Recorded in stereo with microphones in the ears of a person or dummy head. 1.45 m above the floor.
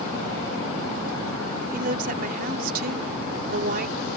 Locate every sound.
1.7 s a woman speaking: 50° right (ahead or behind)